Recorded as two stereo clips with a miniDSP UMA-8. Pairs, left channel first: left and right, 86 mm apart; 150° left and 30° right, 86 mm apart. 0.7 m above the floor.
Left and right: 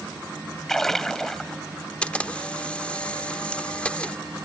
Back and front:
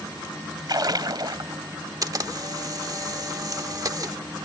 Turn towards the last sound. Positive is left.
turn(degrees=15)